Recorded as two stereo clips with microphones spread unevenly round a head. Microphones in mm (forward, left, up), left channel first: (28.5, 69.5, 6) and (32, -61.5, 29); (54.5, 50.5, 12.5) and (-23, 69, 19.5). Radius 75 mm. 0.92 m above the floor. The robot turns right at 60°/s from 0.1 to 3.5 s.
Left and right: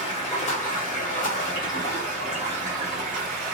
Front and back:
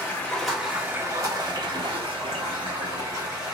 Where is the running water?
50° left, 1.2 m; by 3.5 s 105° right, 1.2 m.